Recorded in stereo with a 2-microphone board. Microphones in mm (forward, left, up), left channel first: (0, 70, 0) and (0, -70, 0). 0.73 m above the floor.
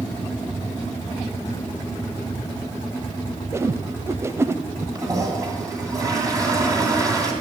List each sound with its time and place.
3.5 s a whoosh: 20° right (ahead or behind), 0.6 m
5.0 s a toilet flushing: 25° right (ahead or behind), 3 m